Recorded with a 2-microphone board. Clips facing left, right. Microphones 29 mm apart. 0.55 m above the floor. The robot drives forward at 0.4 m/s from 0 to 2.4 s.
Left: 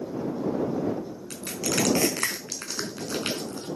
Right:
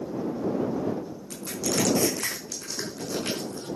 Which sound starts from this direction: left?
Crushing, at 1.3 s.